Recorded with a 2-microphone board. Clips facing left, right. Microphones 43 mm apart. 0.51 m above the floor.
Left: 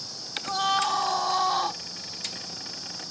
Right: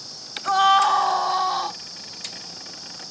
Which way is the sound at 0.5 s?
45° right (ahead or behind).